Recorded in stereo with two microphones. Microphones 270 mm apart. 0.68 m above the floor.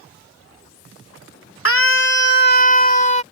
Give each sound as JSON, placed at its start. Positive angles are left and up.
{"t": 1.6, "sound": "a scream", "side_deg": 55}